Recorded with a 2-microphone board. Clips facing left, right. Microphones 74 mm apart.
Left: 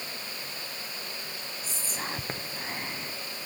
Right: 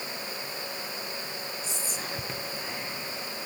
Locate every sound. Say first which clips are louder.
1.6 s whispering: even; 45° left (ahead or behind), 0.6 m